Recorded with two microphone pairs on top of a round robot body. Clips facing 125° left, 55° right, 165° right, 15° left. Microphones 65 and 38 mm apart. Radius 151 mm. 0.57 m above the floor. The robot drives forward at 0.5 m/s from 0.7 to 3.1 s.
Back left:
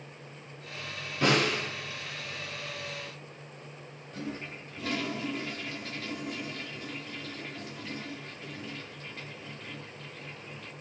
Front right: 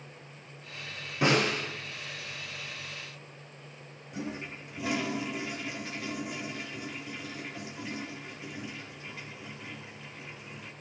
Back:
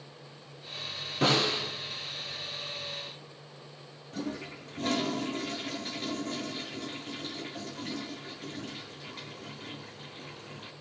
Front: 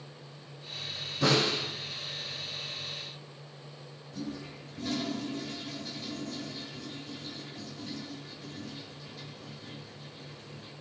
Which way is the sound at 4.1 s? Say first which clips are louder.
Front right 1 dB, back 3 dB; 130° right.